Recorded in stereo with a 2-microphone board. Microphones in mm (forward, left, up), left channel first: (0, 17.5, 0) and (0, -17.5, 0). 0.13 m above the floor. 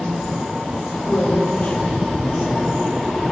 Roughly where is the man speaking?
Left.